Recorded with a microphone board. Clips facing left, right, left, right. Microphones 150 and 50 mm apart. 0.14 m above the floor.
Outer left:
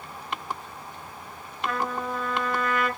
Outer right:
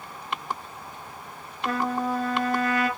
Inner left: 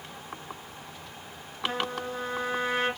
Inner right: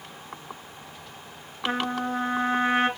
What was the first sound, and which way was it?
A trumpet, 40° right (ahead or behind).